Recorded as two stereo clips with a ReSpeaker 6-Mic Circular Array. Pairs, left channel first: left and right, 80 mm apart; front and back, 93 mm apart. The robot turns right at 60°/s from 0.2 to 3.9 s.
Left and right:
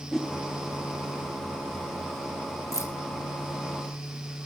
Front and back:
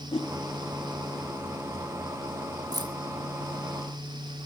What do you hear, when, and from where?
0.1 s a whoosh: straight ahead, 2 m; by 0.3 s 5° left, 2 m
2.7 s keys jangling: 135° left, 1.1 m; by 2.9 s 150° left, 1.1 m